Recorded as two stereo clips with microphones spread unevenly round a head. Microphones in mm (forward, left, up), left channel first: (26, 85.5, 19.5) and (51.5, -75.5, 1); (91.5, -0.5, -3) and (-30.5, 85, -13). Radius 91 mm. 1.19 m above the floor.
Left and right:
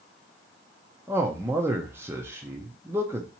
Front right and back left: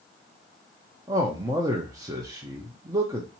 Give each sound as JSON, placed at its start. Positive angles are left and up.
{"t": 1.1, "sound": "a man speaking", "azimuth_deg": -150, "distance_m": 0.6}